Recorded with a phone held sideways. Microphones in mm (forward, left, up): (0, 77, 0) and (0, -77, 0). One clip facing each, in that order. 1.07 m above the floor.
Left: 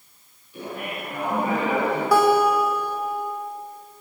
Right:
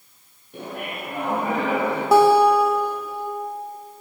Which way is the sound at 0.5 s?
60° right (ahead or behind).